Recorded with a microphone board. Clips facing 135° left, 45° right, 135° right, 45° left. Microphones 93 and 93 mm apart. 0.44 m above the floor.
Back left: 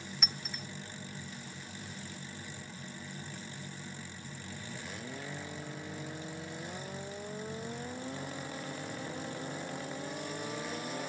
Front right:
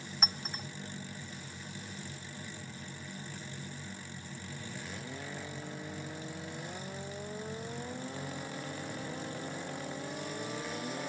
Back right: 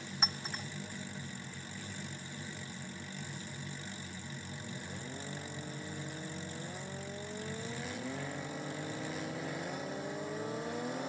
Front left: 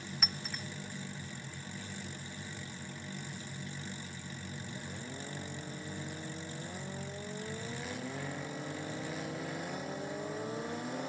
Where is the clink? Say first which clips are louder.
Front right 6 dB, back right 4 dB; 80° right, 0.5 m.